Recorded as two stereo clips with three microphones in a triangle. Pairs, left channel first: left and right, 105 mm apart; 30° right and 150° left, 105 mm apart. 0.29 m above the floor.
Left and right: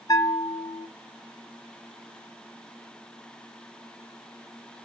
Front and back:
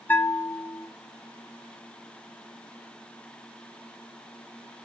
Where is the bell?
40° left, 0.6 m.